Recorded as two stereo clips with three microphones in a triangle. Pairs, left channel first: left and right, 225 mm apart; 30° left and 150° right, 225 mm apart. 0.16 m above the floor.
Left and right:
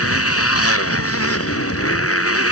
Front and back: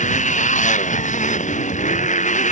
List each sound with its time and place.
0.0 s a motorcycle: 85° left